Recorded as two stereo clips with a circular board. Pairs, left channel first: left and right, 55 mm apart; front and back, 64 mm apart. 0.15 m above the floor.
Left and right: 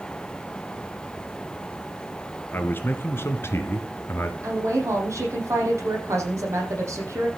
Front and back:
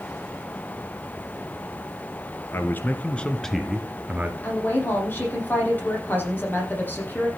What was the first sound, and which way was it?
A man speaking, 45° left.